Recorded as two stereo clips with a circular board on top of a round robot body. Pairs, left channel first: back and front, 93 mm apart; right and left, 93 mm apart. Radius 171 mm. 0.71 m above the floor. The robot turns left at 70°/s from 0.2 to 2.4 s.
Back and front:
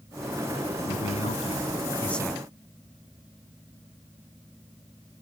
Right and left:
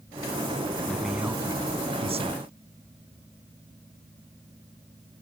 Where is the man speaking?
165° right; by 2.4 s 85° left.